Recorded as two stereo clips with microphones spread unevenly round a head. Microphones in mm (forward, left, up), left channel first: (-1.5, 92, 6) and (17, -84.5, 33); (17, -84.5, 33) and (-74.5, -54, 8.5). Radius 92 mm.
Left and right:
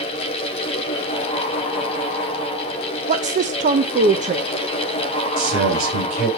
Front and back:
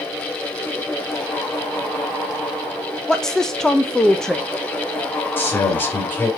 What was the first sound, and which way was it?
A woman speaking, 120° right.